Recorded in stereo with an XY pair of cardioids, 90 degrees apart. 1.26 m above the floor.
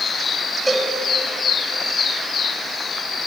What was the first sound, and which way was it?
A cowbell, 5° right.